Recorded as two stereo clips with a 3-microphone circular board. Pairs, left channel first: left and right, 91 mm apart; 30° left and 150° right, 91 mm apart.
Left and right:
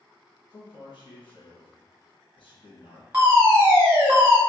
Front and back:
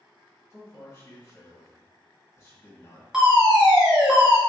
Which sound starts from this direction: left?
A man speaking, at 0.5 s.